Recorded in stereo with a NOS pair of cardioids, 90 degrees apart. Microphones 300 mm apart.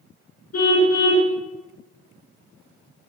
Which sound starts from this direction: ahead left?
A car horn, at 0.5 s.